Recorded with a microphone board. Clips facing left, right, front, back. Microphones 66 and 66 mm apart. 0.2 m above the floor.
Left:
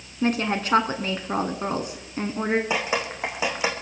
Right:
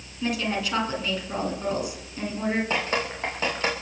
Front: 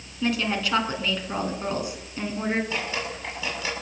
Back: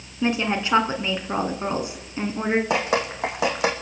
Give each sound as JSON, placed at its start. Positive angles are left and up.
{"t": 0.2, "sound": "a woman speaking", "azimuth_deg": 120, "distance_m": 2.0}
{"t": 2.7, "sound": "dripping", "azimuth_deg": 170, "distance_m": 3.0}